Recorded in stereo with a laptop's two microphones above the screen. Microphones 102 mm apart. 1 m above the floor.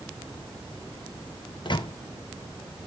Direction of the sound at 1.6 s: 50° left (ahead or behind).